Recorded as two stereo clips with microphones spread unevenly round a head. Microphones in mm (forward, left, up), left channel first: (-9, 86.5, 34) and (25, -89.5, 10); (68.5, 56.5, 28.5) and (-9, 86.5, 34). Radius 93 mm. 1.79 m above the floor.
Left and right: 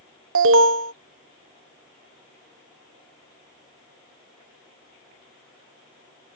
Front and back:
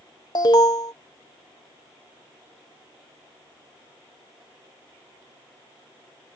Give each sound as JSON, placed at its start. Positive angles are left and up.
{"t": 0.3, "sound": "an alarm", "azimuth_deg": -80}